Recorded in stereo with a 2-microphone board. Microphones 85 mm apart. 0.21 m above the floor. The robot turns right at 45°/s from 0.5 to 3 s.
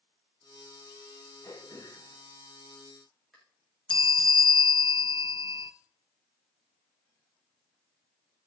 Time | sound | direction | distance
1.4 | throat clearing | 75° left (ahead or behind) | 6 m
3.9 | a bell | 90° left | 0.6 m